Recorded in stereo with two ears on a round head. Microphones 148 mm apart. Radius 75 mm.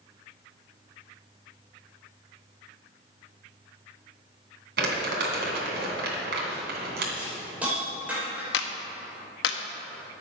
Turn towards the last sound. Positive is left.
turn(degrees=80)